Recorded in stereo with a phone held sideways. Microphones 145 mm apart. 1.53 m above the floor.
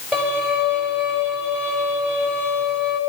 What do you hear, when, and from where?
0.1 s a violin: 5° left (ahead or behind), 8.5 m